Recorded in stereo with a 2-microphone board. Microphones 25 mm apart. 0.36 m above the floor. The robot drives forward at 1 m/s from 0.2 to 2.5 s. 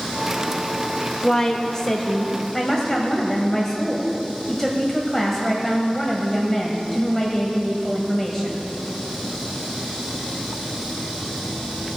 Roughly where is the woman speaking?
Left.